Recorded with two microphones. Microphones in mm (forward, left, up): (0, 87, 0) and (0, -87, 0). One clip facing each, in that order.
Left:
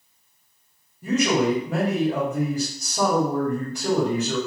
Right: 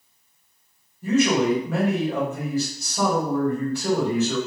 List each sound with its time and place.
1.0 s a man speaking: 15° left (ahead or behind), 1.6 m